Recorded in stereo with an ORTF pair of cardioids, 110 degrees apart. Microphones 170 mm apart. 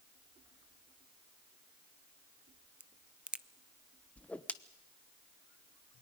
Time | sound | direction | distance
2.8 | a crack | 5° right | 0.5 m
4.2 | a whoosh | 10° left | 1.0 m